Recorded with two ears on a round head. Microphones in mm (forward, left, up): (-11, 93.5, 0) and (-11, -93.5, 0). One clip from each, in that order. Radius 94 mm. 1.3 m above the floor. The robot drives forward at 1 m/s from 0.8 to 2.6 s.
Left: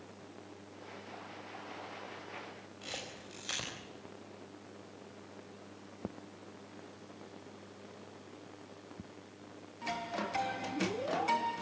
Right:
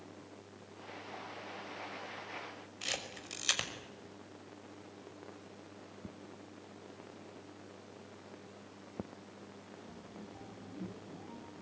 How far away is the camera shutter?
About 5.5 m.